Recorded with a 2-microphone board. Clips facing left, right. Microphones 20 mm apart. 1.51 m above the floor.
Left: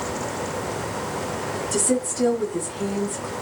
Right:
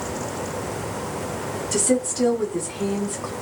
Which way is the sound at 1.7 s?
25° right (ahead or behind).